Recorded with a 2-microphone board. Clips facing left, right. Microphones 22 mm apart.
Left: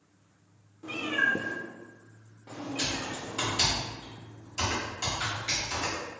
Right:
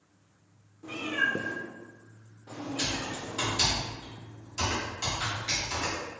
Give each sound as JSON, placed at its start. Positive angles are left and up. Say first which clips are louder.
{"t": 0.8, "sound": "a cat meowing", "louder": "left 2 dB", "side_deg": 25, "distance_m": 0.6}
{"t": 2.8, "sound": "typing on a keyboard", "louder": "even", "side_deg": 30, "distance_m": 1.4}